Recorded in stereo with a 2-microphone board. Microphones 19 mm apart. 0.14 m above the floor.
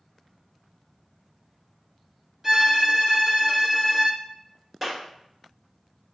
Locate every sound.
2.4 s a violin: 15° right (ahead or behind), 1.4 m
4.8 s a clap: centre (ahead or behind), 1.4 m